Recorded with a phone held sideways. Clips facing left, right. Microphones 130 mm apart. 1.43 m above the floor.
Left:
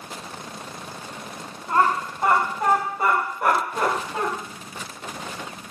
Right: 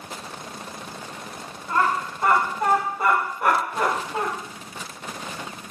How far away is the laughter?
About 1.4 m.